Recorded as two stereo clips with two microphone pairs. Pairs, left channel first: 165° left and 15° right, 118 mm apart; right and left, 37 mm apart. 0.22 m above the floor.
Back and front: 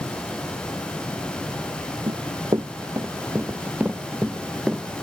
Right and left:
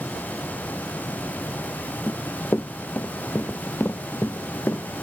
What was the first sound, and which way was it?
Running footsteps, 60° right.